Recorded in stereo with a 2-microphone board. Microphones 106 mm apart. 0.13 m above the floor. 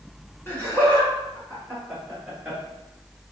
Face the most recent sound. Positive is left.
turn(degrees=-5)  # may be behind; listen again after turning